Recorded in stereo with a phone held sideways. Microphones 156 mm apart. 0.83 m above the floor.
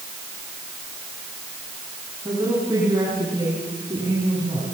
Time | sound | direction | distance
2.2 | a woman speaking | 25° right (ahead or behind) | 7 m